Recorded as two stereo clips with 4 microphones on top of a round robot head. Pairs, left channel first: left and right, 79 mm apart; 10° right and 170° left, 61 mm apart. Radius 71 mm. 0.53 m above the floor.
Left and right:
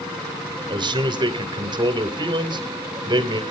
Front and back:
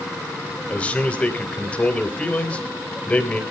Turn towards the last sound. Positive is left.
turn(degrees=-80)